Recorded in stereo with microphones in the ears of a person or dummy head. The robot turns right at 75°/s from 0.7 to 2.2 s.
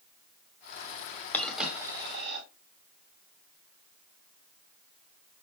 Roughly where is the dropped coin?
Centre.